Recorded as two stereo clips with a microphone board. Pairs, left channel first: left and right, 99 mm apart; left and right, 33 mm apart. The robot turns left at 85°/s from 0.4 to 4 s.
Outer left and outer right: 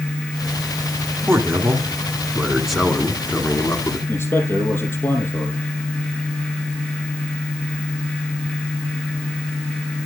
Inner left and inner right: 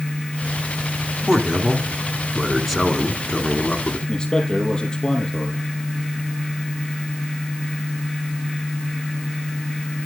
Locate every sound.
1.3 s a man speaking: 20° right (ahead or behind), 1.7 m; by 4.0 s 25° left (ahead or behind), 1.7 m
4.1 s a man speaking: 25° left (ahead or behind), 6 m